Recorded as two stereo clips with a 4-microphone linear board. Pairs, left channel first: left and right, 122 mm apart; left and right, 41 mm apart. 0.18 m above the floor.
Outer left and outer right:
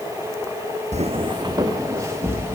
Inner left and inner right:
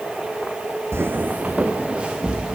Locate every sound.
0.9 s footsteps: 70° right (ahead or behind), 0.7 m; by 2.6 s 20° right (ahead or behind), 3 m